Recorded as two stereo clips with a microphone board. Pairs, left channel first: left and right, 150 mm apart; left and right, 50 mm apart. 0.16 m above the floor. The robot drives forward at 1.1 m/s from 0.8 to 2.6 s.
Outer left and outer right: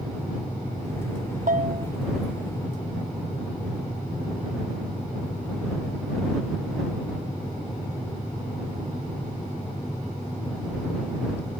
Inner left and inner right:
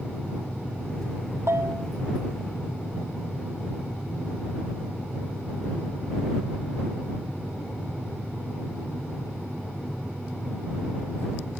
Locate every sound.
1.5 s a bell: 75° right (ahead or behind); by 1.9 s 55° right (ahead or behind)